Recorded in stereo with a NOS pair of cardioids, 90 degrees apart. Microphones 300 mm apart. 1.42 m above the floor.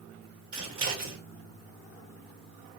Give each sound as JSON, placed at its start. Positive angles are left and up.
{"t": 0.5, "sound": "scissors", "azimuth_deg": -45, "distance_m": 1.5}